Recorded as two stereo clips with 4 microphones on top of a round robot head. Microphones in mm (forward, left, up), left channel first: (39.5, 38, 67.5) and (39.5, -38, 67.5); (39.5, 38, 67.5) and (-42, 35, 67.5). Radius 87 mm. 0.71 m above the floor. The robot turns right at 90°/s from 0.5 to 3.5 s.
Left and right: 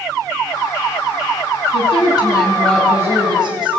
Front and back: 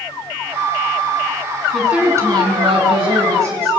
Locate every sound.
1.7 s a woman speaking: 90° left, 6.5 m; by 3.7 s 115° right, 6.5 m